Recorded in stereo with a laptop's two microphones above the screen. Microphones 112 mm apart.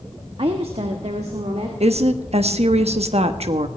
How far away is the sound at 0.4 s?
About 1.2 m.